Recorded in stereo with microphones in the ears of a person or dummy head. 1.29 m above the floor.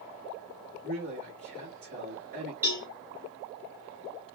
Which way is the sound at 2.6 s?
10° right (ahead or behind).